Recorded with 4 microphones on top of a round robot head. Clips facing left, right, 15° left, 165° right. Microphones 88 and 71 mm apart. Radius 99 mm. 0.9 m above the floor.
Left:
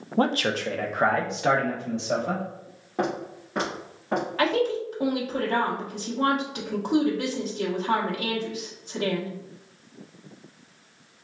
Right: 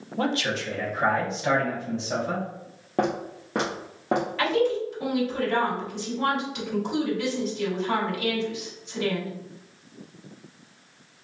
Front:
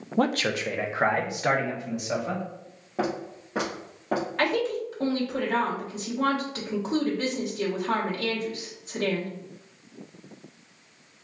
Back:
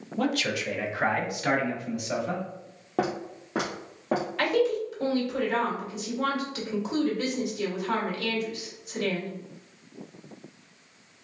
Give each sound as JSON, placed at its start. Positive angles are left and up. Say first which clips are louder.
{"t": 0.2, "sound": "a man speaking", "louder": "left 3 dB, front 3 dB", "azimuth_deg": 45, "distance_m": 0.5}
{"t": 3.0, "sound": "footsteps", "louder": "right 2 dB, back 1 dB", "azimuth_deg": -135, "distance_m": 1.1}
{"t": 4.4, "sound": "a woman speaking", "louder": "left 1 dB, back 2 dB", "azimuth_deg": 55, "distance_m": 1.3}